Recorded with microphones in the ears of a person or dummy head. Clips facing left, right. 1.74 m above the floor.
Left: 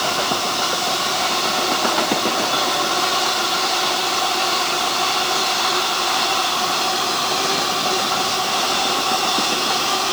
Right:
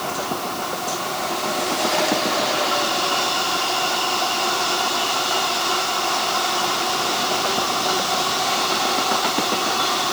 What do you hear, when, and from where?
Only background noise.